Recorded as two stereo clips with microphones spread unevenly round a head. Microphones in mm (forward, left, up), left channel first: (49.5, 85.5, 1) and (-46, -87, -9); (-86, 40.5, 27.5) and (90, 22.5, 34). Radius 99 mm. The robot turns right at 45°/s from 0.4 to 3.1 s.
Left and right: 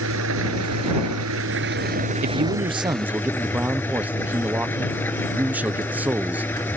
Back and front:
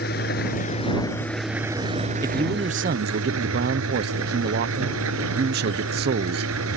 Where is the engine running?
140° right; by 6.8 s 20° right.